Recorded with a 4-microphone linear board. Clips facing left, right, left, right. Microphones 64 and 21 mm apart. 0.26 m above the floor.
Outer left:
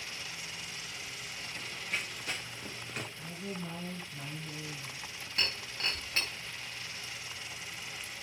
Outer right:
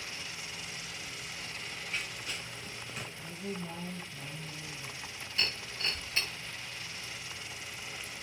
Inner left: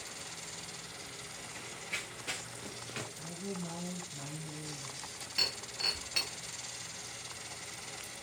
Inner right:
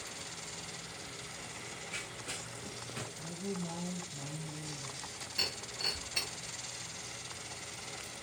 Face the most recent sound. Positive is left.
turn(degrees=50)  # may be behind; listen again after turning